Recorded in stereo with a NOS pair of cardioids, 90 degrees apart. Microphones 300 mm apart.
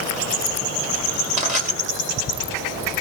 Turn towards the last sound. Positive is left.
turn(degrees=-20)